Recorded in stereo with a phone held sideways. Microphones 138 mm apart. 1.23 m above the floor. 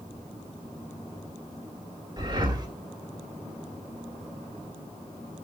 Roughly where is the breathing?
Right.